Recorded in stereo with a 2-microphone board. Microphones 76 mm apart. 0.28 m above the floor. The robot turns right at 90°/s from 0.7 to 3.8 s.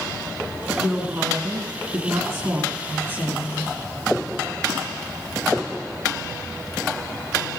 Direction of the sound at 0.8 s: 175° right.